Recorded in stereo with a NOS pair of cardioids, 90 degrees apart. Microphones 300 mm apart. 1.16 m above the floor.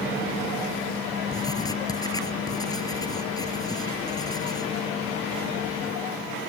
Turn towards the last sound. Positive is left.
turn(degrees=15)